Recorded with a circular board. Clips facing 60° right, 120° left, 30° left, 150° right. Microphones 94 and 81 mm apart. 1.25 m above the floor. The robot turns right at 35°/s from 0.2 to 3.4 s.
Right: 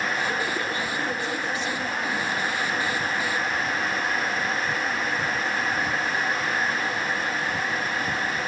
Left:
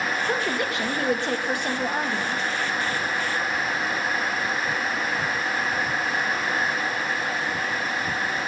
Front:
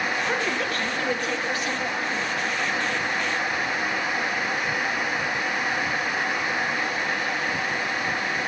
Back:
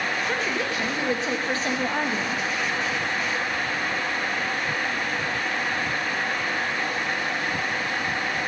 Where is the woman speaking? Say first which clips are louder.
Left 2 dB, front 1 dB; 110° left, 1.7 m; by 2.5 s 175° right, 1.7 m.